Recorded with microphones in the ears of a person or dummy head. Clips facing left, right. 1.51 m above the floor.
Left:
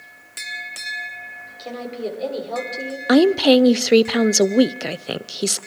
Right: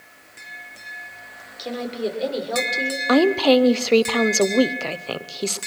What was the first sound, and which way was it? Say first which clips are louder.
A woman speaking: right 2 dB; 15° right (ahead or behind).